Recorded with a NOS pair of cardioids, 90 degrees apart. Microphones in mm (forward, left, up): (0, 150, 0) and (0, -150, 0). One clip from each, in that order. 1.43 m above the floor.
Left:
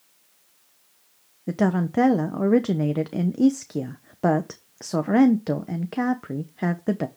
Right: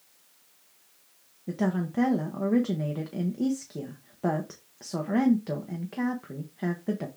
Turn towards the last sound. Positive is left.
turn(degrees=40)